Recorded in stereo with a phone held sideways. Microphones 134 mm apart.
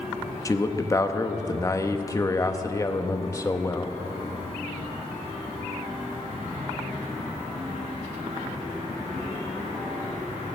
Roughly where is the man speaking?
Left.